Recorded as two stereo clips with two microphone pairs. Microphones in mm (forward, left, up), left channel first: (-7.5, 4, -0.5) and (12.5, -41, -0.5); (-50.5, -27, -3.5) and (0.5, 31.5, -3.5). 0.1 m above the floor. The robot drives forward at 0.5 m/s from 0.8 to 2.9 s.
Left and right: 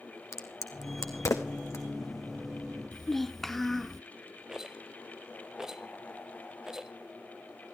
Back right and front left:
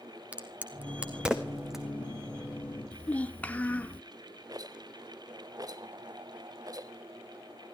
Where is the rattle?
10° left, 0.7 m.